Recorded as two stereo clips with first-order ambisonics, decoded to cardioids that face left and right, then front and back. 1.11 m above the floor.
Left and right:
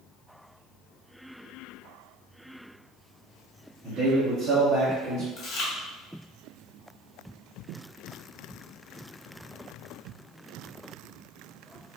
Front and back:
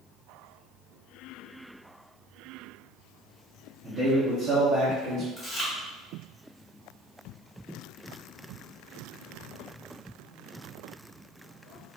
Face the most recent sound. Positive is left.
turn(degrees=70)